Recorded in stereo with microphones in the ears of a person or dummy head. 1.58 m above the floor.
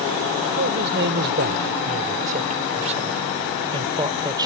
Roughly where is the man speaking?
Right.